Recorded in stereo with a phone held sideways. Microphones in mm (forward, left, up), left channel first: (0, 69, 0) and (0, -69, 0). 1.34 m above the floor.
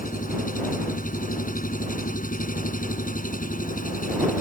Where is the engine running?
85° left.